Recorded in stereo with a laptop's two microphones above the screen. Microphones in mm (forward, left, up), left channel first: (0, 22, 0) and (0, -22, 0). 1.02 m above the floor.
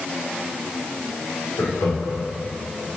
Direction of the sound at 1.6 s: 85° left.